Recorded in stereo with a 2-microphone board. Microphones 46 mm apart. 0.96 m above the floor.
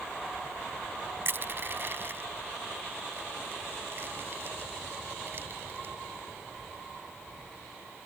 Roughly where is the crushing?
Right.